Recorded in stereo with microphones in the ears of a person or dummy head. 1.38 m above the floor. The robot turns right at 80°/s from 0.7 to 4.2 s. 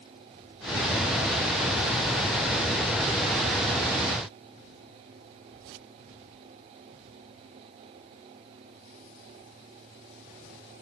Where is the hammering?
No hammering in this recording.